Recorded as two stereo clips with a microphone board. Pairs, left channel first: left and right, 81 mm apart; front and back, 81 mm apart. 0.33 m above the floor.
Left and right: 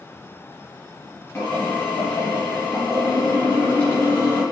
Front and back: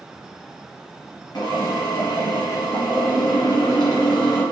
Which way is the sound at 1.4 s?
25° left.